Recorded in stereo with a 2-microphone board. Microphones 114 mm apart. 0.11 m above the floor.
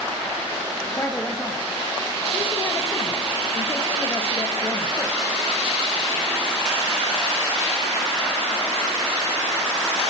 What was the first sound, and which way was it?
A woman speaking, 20° left (ahead or behind).